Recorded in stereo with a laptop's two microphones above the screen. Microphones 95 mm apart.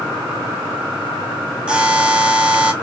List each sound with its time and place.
1.7 s a buzzer: 10° right (ahead or behind), 1.1 m